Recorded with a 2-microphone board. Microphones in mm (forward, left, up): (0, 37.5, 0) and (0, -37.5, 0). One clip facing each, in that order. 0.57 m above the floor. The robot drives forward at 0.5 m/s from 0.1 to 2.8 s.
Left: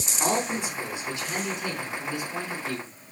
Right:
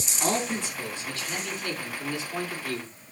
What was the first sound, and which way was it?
A man speaking, 15° left (ahead or behind).